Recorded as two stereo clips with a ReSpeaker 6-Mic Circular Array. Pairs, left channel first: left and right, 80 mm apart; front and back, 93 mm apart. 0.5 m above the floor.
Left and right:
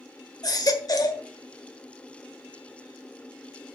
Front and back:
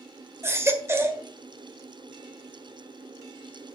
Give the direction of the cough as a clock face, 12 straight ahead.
No cough in this recording.